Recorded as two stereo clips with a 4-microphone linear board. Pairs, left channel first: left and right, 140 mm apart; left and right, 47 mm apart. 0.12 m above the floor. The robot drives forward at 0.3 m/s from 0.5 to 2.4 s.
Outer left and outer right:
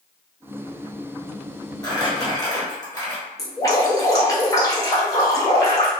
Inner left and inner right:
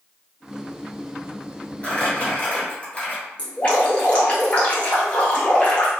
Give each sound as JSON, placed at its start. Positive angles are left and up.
{"t": 1.8, "sound": "crumpling", "side_deg": 25, "distance_m": 1.3}
{"t": 3.4, "sound": "dripping", "side_deg": 20, "distance_m": 1.2}